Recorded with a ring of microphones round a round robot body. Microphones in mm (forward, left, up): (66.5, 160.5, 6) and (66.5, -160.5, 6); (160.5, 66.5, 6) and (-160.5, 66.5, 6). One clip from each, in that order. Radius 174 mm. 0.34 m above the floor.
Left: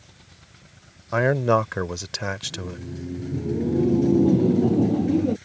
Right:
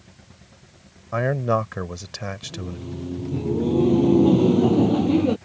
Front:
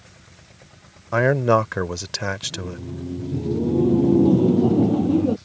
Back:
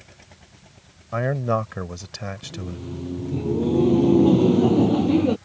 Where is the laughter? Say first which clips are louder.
Left 2 dB, front 5 dB; 140° right.